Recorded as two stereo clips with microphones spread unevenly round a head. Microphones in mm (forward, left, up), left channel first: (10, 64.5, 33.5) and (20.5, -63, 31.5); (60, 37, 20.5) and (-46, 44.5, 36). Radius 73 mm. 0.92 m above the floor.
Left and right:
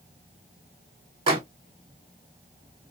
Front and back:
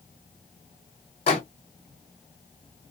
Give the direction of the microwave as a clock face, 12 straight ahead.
1 o'clock.